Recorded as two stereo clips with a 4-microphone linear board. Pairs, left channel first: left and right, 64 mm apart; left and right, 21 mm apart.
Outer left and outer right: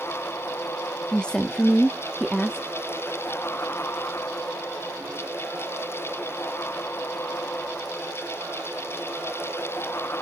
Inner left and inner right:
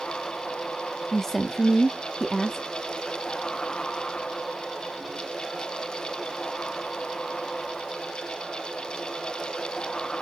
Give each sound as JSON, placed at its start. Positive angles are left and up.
{"t": 1.1, "sound": "a woman speaking", "side_deg": 15, "distance_m": 0.8}